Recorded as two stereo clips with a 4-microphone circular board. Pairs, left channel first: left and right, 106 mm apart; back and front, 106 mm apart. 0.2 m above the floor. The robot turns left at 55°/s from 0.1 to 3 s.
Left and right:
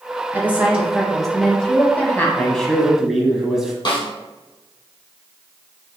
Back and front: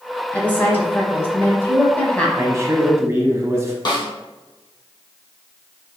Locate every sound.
0.3 s a woman speaking: 130° right, 1.1 m; by 2.3 s 120° left, 1.1 m
2.4 s a man speaking: 25° left, 1.1 m; by 3.8 s 10° right, 1.1 m
3.9 s a snare drum: 135° left, 1.9 m